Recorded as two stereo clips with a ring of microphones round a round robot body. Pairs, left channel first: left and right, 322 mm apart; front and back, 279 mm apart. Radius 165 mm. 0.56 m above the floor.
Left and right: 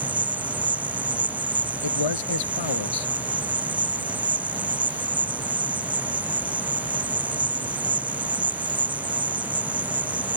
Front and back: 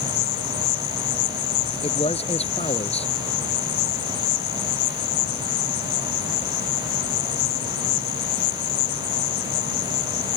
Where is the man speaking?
70° left.